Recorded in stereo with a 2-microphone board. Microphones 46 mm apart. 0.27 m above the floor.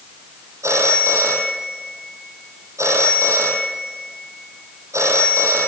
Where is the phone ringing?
75° right (ahead or behind), 5 m.